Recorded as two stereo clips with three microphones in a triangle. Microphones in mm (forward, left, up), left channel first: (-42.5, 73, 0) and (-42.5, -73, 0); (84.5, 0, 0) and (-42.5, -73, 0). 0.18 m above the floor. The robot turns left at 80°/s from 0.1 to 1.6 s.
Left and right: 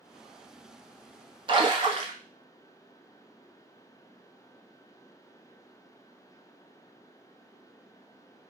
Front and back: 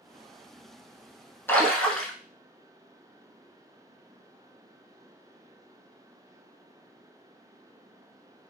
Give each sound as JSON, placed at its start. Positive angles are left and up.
{"t": 1.5, "sound": "a splash", "azimuth_deg": -45, "distance_m": 0.8}